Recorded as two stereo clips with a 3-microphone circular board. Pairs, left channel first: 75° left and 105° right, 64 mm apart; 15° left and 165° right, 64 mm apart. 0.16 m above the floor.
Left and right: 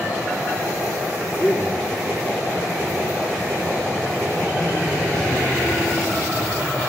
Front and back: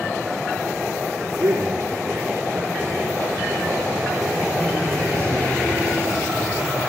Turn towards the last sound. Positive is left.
turn(degrees=85)